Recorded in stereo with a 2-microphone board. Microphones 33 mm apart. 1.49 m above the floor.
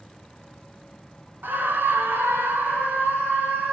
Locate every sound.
1.4 s a scream: 75° right (ahead or behind), 1.7 m; by 3.7 s 60° right (ahead or behind), 3.5 m